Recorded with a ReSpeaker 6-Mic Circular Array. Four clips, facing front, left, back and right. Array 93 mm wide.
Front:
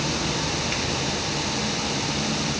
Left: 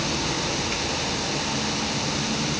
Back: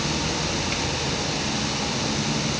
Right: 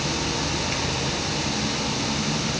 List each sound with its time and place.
Only background noise.